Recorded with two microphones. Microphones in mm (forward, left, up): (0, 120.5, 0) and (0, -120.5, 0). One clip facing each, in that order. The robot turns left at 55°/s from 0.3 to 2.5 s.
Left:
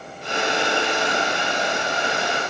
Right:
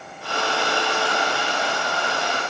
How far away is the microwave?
I don't hear a microwave.